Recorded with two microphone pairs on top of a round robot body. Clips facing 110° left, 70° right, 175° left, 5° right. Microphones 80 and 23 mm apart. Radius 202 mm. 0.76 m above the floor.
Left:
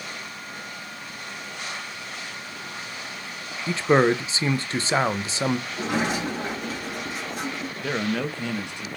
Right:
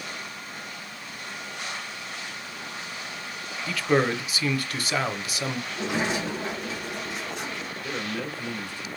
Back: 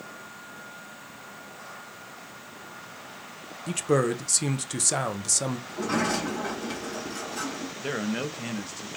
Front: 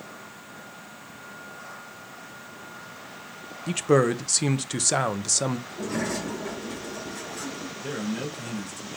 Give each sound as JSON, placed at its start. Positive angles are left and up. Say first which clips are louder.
{"t": 3.7, "sound": "a man speaking", "louder": "left 4 dB, front 3 dB", "azimuth_deg": 55, "distance_m": 0.9}
{"t": 5.7, "sound": "a sliding door", "louder": "left 2 dB, back 3 dB", "azimuth_deg": 165, "distance_m": 2.5}
{"t": 7.8, "sound": "a man speaking", "louder": "left 7 dB, back 2 dB", "azimuth_deg": 115, "distance_m": 1.2}